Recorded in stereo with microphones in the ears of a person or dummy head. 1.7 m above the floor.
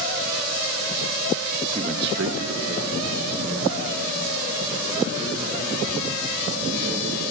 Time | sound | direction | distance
1.8 | a man speaking | 20° right (ahead or behind) | 0.6 m